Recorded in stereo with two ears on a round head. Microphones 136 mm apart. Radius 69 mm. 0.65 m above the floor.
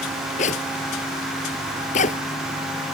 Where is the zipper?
45° left (ahead or behind).